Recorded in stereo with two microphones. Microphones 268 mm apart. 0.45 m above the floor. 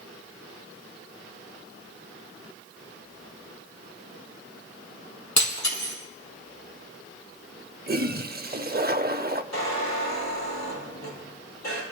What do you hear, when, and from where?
5.4 s breaking glass: 90° left, 4 m
7.9 s a toilet flushing: 35° right (ahead or behind), 0.5 m
9.5 s a squeak: 80° left, 5 m